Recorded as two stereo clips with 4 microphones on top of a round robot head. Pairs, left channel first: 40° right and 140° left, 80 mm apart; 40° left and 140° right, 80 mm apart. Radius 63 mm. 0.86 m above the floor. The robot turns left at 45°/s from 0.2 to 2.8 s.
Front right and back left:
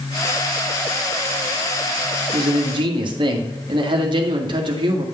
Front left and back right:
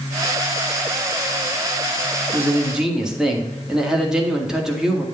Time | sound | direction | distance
2.3 | a man speaking | 160° left | 2.0 m